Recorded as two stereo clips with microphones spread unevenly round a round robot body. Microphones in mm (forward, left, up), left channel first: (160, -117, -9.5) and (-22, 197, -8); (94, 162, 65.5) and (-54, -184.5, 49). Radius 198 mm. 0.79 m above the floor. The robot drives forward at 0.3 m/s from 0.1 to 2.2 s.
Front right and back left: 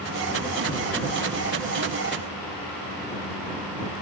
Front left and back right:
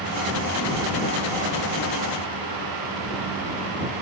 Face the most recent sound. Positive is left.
No sound to turn to.